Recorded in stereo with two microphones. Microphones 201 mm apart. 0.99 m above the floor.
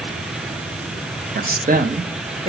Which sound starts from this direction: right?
A woman speaking, at 1.4 s.